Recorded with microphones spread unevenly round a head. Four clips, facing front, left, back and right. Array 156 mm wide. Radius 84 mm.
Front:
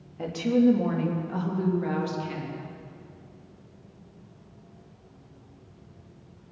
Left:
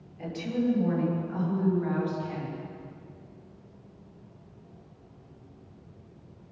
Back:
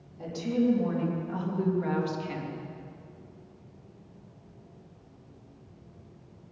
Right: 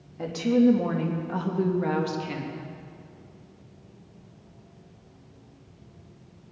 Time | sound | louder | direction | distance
0.2 | a woman speaking | right 8 dB, front 5 dB | 40° right | 3 m